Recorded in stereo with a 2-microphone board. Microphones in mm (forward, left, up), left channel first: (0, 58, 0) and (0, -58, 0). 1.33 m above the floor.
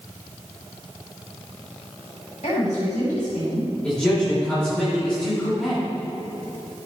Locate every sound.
2.4 s a woman speaking: 75° left (ahead or behind), 3 m; by 3.7 s 85° left, 2.5 m
3.8 s a man speaking: 10° left (ahead or behind), 3 m